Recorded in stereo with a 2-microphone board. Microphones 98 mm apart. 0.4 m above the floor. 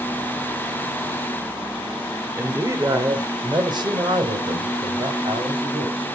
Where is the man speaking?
20° right (ahead or behind), 1.1 m; by 6.1 s 65° right (ahead or behind), 3 m.